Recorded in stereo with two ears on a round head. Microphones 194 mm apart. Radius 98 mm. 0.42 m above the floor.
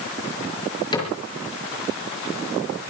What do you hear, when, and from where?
0.9 s a cupboard door: 20° left (ahead or behind), 5.5 m